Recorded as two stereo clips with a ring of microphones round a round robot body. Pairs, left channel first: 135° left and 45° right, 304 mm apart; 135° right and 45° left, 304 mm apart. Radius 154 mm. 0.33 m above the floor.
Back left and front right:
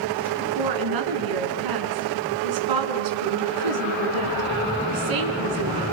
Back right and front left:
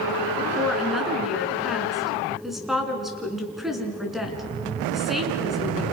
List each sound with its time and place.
0.4 s a woman speaking: 45° right, 4 m